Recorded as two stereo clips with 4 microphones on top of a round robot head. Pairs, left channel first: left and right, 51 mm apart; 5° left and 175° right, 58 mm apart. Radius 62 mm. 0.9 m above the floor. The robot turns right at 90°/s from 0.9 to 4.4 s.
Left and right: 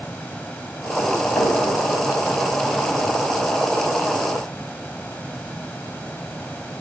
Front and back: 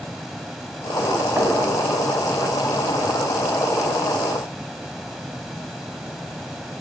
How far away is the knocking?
About 6 m.